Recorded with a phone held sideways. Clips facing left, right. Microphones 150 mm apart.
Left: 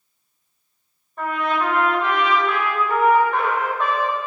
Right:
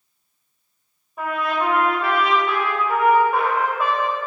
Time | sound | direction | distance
1.2 | a trumpet | 10° right (ahead or behind) | 3 m